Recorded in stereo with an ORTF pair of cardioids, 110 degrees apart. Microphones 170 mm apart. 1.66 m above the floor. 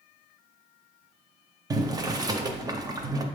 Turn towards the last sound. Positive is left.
turn(degrees=-20)